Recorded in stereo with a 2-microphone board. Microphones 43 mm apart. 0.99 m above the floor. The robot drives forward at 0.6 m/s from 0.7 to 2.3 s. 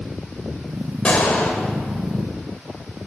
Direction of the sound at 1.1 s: 35° left (ahead or behind).